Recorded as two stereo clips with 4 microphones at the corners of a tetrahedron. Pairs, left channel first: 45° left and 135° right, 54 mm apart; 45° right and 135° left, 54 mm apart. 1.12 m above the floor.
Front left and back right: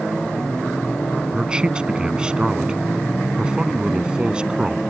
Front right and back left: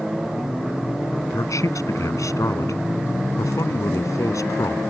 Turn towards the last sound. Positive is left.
turn(degrees=-60)